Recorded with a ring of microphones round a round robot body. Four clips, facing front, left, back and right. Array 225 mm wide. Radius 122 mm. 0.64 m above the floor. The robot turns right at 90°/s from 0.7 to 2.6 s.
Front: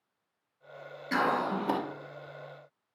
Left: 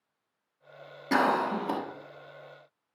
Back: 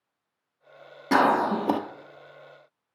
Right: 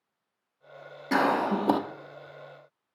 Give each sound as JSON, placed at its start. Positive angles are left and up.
{"t": 1.1, "sound": "a cough", "azimuth_deg": 175, "distance_m": 1.0}